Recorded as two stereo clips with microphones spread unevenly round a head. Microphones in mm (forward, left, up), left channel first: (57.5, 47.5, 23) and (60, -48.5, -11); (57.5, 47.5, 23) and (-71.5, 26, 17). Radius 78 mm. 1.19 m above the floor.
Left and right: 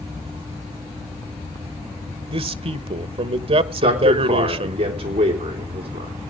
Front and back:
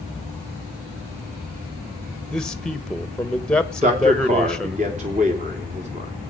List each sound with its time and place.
2.3 s a man speaking: 75° right, 1.0 m
3.8 s a man speaking: 125° right, 3.5 m